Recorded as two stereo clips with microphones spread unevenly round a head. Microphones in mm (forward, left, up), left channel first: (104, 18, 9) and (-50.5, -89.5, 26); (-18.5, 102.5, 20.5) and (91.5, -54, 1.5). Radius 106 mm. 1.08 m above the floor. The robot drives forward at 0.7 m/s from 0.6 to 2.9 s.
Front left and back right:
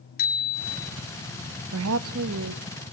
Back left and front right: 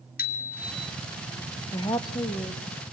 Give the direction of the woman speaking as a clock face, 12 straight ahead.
5 o'clock.